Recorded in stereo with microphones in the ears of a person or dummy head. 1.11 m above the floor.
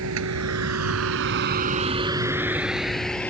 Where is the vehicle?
70° right (ahead or behind); by 3.3 s 5° left (ahead or behind).